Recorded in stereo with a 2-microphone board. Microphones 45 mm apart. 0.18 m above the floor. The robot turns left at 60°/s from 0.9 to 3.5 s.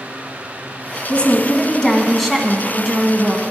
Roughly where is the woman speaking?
Left.